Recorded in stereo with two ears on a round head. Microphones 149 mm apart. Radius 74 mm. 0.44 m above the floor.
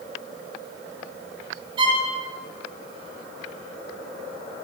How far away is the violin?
About 1.4 m.